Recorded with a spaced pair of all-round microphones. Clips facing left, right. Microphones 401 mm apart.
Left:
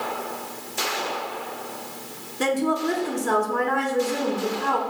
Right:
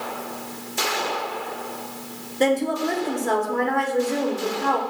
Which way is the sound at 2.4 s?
20° left (ahead or behind).